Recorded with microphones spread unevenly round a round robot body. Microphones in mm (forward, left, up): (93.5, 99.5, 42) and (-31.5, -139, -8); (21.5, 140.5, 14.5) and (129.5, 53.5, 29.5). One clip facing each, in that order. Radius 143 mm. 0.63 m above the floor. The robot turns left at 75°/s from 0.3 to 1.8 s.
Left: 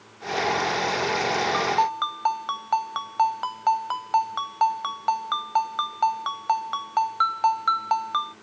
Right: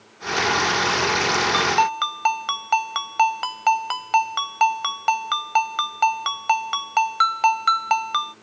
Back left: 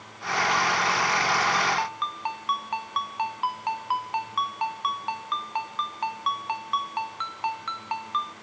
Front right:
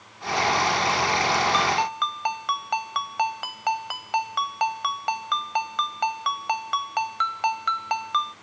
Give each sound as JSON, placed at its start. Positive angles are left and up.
{"t": 1.5, "sound": "a ringtone", "azimuth_deg": -55}